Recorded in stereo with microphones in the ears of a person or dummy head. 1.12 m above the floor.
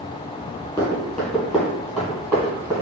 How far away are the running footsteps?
About 1.2 m.